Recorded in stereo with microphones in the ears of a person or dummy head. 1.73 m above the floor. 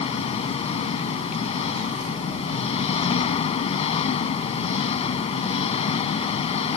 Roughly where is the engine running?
Left.